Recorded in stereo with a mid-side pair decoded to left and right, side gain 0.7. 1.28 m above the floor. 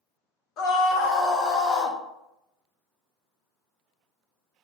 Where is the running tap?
No running tap in this recording.